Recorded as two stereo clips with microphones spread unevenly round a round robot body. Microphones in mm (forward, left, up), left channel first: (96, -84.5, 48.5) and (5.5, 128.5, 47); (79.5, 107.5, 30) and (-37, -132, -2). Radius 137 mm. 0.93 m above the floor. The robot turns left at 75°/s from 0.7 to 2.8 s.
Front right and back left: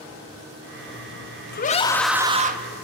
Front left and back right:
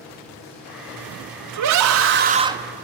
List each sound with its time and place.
1.5 s a scream: 115° right, 1.5 m; by 2.6 s 165° left, 1.5 m